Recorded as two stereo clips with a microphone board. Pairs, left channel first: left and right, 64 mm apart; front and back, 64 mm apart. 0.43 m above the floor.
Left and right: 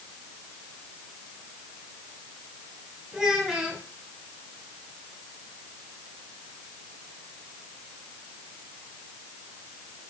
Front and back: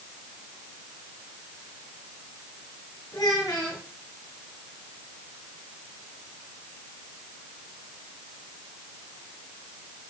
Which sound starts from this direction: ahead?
A child speaking, at 3.1 s.